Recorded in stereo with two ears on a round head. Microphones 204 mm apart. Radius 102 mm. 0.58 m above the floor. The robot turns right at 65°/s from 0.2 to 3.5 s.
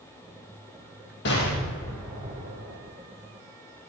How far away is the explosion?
About 4 m.